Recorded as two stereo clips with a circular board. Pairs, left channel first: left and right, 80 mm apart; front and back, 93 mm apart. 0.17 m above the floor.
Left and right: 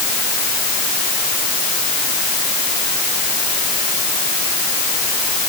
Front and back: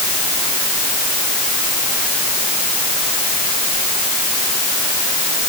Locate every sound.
Only background noise.